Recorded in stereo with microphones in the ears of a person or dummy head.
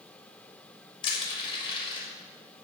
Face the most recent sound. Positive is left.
turn(degrees=30)  # may be behind; listen again after turning